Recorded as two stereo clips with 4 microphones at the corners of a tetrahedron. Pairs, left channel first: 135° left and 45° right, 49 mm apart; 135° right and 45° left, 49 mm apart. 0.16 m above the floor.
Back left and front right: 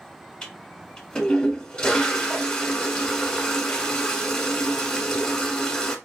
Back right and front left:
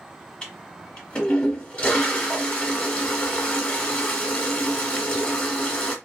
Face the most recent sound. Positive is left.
turn(degrees=-170)